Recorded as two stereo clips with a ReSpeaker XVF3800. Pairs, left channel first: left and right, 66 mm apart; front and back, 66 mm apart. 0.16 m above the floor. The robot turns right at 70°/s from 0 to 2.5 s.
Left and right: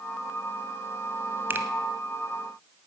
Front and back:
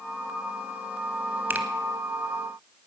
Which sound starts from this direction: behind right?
A finger snap, at 1.5 s.